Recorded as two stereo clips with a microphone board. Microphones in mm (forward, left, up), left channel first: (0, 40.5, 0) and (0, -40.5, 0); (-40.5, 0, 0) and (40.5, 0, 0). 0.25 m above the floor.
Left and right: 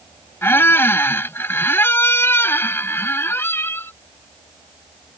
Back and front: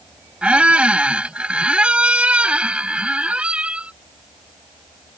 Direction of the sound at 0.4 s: 65° left.